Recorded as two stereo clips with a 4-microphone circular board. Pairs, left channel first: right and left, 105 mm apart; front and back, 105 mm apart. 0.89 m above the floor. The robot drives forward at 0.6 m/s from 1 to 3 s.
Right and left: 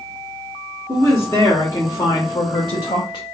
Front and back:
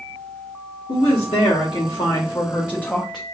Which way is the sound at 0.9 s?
25° right.